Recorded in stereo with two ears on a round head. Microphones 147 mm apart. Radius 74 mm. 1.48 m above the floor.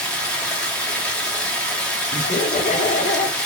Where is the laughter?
50° left (ahead or behind), 1.0 m.